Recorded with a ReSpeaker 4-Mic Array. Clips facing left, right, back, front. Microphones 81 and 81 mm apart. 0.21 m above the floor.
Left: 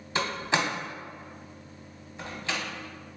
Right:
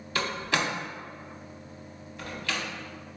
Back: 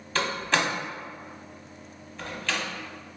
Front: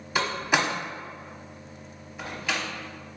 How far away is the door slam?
About 0.8 m.